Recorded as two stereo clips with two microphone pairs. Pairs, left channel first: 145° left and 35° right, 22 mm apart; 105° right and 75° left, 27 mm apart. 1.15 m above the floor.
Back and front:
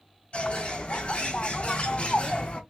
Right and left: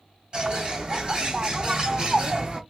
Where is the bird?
135° left, 2.5 m.